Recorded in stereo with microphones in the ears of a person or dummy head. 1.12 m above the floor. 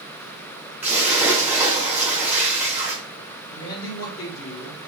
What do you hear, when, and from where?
0.8 s a splash: 5° right (ahead or behind), 1.8 m
3.5 s a man speaking: 60° left (ahead or behind), 1.6 m